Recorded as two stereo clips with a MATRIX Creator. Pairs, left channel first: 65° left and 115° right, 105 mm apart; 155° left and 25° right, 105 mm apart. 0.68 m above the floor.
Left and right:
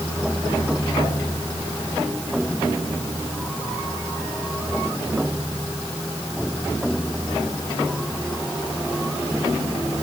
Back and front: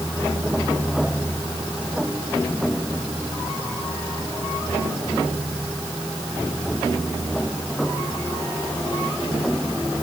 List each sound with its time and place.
Only background noise.